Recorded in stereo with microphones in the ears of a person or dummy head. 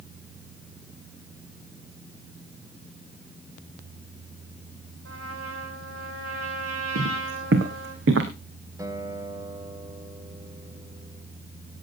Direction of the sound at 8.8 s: 20° right (ahead or behind).